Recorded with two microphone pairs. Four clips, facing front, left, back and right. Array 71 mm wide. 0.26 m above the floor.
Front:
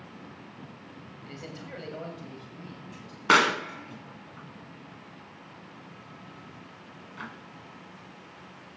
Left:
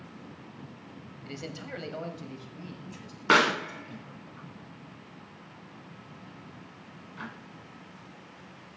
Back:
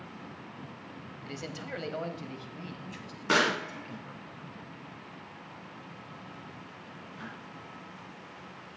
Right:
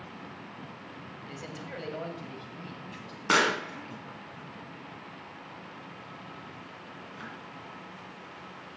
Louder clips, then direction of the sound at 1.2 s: Left 3 dB, back 3 dB; 120° left.